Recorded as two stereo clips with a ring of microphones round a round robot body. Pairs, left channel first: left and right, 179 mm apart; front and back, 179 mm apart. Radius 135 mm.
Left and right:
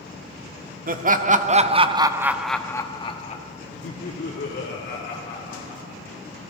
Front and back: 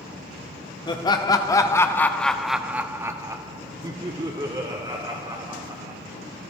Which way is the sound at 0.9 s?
65° right.